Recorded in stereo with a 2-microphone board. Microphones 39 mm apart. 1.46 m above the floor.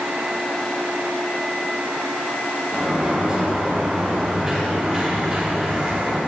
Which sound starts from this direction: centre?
A sliding door, at 2.7 s.